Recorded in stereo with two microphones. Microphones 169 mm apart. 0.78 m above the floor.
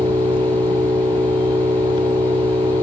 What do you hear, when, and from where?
0.0 s an engine running: 30° right (ahead or behind), 2.5 m